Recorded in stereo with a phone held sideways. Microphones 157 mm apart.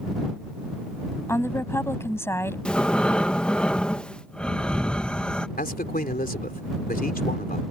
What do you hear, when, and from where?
1.3 s a woman speaking: 15° left (ahead or behind)
2.6 s breathing: 5° left (ahead or behind)
5.6 s a man speaking: 70° left (ahead or behind)